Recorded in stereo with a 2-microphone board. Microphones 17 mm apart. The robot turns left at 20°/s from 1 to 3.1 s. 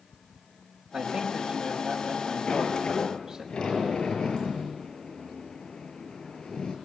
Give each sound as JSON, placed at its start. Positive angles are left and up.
{"t": 0.9, "sound": "a man speaking", "azimuth_deg": -110, "distance_m": 5.0}
{"t": 2.5, "sound": "a sliding door", "side_deg": 80, "distance_m": 7.0}